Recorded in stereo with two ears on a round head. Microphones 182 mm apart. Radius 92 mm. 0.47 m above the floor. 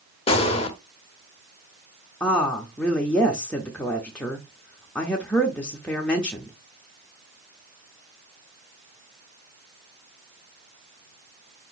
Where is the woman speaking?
5° left (ahead or behind), 0.9 m.